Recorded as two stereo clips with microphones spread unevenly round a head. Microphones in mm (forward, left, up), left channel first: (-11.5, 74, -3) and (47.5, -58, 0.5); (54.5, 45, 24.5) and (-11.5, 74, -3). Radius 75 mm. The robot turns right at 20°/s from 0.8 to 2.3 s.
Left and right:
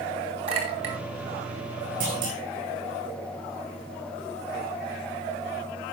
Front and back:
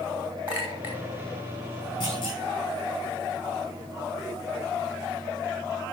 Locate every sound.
0.5 s a clink: 120° right, 2.5 m
2.0 s a clunk: 85° right, 7.5 m; by 2.4 s 80° right, 7.5 m